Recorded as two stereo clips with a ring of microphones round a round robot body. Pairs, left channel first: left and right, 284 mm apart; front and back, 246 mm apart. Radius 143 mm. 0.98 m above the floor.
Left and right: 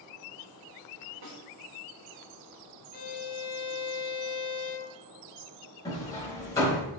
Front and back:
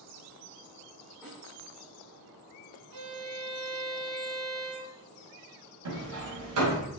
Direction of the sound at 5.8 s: 170° left.